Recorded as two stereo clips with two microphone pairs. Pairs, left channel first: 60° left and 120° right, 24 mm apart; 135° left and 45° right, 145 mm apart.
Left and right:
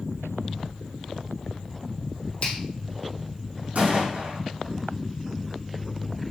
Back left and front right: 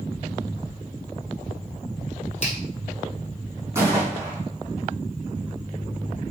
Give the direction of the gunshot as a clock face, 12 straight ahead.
4 o'clock.